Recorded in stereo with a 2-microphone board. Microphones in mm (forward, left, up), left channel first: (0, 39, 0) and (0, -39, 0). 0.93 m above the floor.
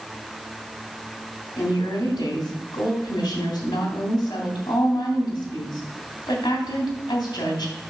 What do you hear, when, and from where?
1.6 s a woman speaking: 65° left (ahead or behind), 2.5 m